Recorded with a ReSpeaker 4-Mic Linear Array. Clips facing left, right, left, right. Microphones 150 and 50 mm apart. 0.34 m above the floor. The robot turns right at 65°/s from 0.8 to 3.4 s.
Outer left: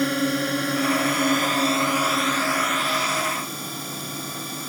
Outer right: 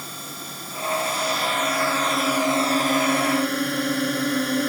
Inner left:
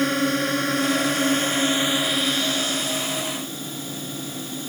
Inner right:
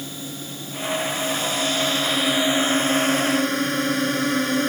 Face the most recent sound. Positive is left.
turn(degrees=-100)